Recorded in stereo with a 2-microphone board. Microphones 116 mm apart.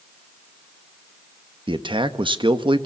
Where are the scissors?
No scissors in this recording.